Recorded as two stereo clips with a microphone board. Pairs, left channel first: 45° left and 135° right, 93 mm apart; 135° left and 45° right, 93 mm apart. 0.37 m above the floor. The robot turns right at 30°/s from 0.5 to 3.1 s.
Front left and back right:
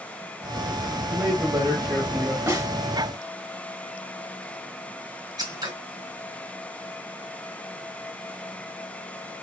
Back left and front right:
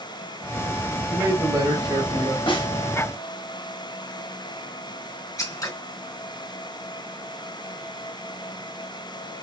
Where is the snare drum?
165° left, 2.5 m; by 2.7 s 175° left, 2.5 m.